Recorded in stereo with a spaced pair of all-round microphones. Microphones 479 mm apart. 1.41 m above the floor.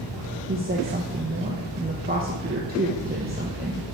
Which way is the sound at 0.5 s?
20° right (ahead or behind).